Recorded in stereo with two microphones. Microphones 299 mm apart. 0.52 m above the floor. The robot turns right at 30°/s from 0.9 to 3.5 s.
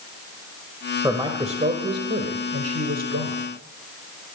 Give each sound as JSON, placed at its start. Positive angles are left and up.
{"t": 1.0, "sound": "a man speaking", "azimuth_deg": -170, "distance_m": 1.8}